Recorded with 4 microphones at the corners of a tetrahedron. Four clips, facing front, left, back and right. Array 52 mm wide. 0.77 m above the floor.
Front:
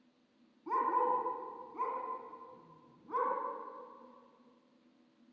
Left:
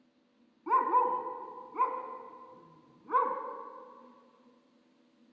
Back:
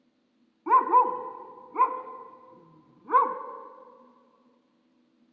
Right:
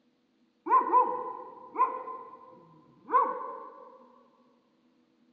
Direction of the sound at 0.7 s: 170° right.